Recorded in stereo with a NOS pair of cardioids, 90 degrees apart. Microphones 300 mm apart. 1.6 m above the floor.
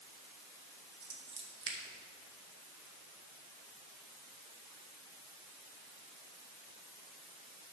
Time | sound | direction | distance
1.0 | scissors | 40° right | 2.5 m